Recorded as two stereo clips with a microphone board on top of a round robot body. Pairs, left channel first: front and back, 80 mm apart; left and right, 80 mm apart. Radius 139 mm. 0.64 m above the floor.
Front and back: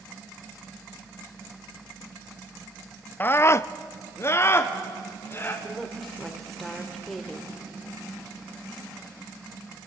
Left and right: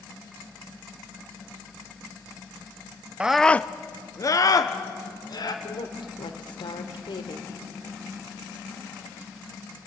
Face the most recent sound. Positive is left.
turn(degrees=90)